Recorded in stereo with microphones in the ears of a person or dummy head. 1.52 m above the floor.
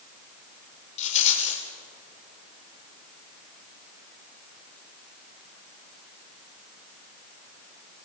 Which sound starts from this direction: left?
A rattle, at 1.0 s.